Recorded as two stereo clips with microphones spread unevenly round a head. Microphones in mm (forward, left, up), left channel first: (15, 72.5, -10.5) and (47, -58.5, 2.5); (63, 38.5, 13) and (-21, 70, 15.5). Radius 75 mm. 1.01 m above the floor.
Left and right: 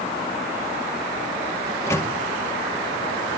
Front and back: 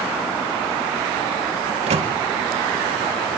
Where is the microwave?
175° left, 1.7 m.